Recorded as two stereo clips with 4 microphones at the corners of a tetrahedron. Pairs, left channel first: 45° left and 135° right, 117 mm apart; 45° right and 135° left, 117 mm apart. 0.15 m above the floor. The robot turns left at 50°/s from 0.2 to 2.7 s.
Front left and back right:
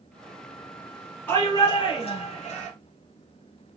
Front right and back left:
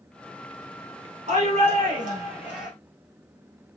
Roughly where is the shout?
Behind left.